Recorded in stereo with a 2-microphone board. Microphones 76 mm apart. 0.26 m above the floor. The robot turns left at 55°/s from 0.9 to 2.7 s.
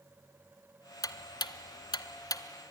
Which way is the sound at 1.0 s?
55° left (ahead or behind).